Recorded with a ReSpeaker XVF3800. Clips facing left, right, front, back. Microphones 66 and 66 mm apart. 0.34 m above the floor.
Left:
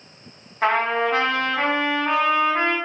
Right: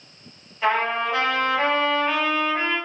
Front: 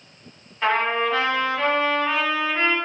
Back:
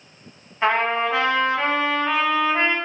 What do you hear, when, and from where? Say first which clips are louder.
0.6 s a trumpet: left 2 dB, back 1 dB; 115° left, 1.0 m